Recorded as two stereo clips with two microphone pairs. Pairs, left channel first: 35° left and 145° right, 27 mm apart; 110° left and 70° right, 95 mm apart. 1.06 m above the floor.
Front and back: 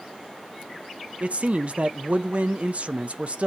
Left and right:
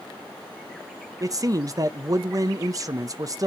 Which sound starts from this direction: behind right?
A man speaking, at 1.2 s.